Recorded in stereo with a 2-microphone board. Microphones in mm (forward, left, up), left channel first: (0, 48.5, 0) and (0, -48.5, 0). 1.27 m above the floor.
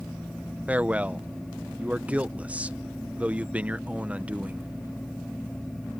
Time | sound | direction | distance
0.7 | a man speaking | 15° right (ahead or behind) | ?